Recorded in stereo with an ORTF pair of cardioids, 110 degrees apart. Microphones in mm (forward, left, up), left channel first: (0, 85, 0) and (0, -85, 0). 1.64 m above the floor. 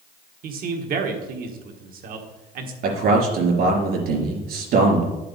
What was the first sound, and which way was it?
A man speaking, 60° right.